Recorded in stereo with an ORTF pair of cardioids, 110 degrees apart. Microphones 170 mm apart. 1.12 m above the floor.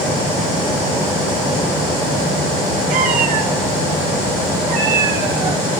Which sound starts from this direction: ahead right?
A cat meowing, at 2.9 s.